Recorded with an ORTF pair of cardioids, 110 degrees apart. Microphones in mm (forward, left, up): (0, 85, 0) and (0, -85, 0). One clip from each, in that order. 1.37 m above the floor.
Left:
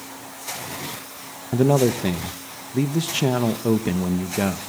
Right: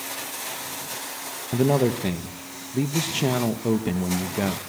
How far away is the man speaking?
About 1.4 m.